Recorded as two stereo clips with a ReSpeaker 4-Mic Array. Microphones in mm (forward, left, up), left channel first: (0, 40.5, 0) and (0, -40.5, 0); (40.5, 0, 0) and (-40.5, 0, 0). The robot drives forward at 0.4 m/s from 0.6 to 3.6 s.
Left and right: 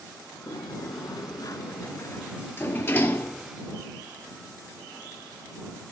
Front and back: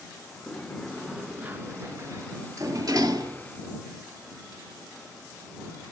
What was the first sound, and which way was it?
A sliding door, 80° left.